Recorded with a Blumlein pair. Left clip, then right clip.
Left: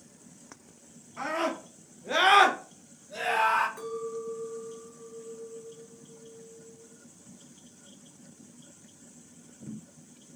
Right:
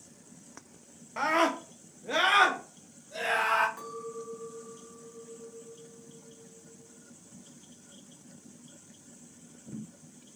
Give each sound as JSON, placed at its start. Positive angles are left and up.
{"t": 1.2, "sound": "a scream", "azimuth_deg": -45, "distance_m": 0.9}
{"t": 3.8, "sound": "a clink", "azimuth_deg": 10, "distance_m": 1.3}